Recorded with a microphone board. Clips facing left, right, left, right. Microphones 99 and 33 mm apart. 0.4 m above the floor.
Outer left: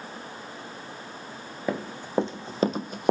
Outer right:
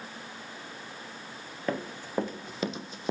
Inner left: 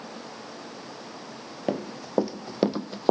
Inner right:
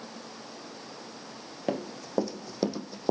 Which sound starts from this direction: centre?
Running footsteps, at 1.7 s.